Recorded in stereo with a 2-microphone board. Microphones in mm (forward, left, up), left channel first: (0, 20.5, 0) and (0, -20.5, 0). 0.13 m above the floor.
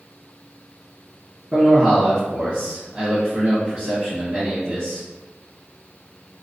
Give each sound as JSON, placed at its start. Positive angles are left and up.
{"t": 1.5, "sound": "a man speaking", "side_deg": -20, "distance_m": 1.6}